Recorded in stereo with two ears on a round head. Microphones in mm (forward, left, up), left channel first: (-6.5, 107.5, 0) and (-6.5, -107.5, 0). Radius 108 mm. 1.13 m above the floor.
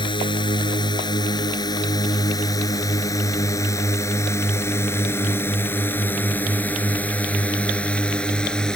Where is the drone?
20° left (ahead or behind); by 8.8 s 5° left (ahead or behind).